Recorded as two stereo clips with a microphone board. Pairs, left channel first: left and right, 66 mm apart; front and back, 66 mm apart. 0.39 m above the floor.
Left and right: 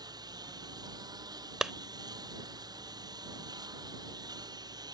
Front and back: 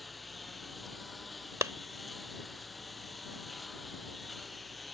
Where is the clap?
170° right.